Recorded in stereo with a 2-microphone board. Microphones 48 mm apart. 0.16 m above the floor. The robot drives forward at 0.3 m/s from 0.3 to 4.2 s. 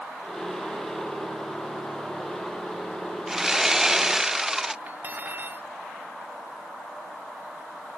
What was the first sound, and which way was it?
Sawing, 10° right (ahead or behind).